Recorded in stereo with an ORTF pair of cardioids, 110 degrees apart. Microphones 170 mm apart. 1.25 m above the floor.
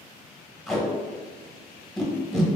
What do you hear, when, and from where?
0.7 s tape being pulled: straight ahead, 0.9 m